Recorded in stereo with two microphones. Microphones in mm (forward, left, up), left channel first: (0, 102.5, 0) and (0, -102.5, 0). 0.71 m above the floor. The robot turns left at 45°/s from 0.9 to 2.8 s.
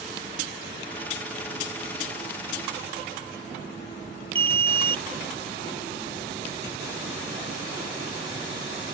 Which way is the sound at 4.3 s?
10° left (ahead or behind).